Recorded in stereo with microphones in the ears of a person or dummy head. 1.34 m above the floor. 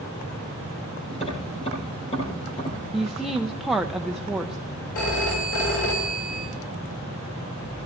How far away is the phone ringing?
About 3.5 m.